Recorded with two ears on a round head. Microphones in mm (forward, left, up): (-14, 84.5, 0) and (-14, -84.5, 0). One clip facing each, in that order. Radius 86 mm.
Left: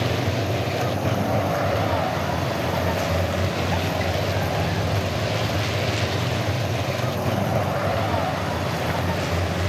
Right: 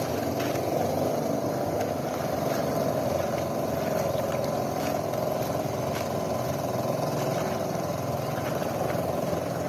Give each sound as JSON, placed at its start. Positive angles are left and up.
{"t": 0.0, "sound": "a vehicle", "side_deg": 80}